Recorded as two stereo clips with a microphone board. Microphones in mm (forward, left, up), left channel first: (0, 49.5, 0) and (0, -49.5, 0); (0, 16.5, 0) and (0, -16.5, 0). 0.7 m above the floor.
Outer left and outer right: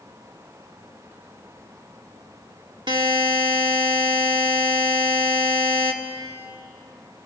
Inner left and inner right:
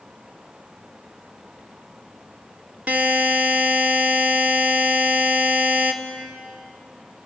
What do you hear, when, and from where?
2.9 s a buzzer: 50° right (ahead or behind), 1.9 m